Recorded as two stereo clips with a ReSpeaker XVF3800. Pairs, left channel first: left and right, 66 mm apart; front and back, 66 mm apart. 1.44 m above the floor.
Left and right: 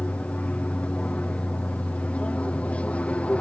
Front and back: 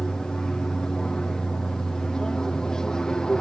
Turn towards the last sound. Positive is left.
turn(degrees=65)